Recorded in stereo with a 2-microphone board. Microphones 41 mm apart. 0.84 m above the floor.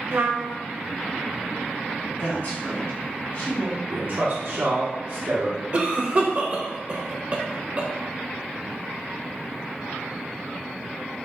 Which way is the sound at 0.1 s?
55° right (ahead or behind).